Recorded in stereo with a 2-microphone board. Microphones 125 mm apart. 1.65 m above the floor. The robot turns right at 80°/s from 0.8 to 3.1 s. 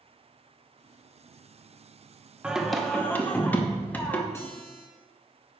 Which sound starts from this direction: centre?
Singing, at 2.4 s.